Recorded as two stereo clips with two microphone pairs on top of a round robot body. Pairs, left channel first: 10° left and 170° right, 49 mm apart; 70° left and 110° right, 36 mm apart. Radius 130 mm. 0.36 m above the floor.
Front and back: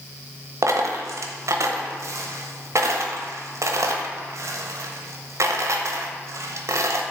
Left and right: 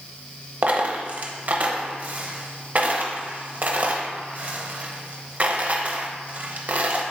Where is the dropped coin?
160° right, 0.8 m.